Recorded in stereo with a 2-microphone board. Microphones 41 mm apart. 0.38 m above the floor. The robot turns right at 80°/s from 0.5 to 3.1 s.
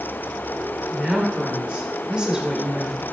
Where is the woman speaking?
10° right (ahead or behind), 0.9 m; by 3.0 s 5° left (ahead or behind), 0.9 m.